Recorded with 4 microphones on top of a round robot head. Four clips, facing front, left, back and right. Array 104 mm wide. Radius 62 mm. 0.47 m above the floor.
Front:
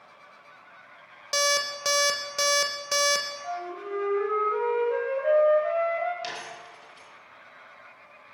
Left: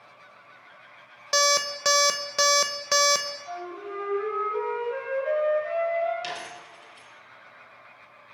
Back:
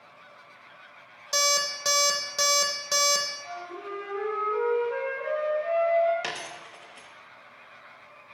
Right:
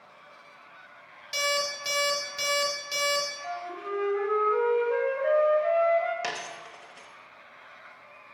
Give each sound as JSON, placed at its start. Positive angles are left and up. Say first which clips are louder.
{"t": 1.3, "sound": "an alarm clock", "louder": "left 5 dB, front 1 dB", "azimuth_deg": 85, "distance_m": 0.7}
{"t": 3.4, "sound": "a flute", "louder": "right 1 dB, front 4 dB", "azimuth_deg": -55, "distance_m": 3.0}
{"t": 6.2, "sound": "a dropped coin", "louder": "right 1 dB, back 1 dB", "azimuth_deg": -135, "distance_m": 1.1}